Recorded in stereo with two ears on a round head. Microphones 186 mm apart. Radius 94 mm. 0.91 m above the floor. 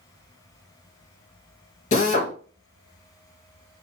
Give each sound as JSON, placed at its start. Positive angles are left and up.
{"t": 1.9, "sound": "a drill", "side_deg": 35, "distance_m": 0.9}